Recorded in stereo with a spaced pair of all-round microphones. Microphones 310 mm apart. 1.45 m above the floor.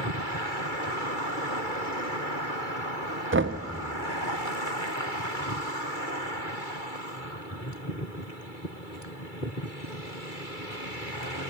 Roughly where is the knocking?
Right.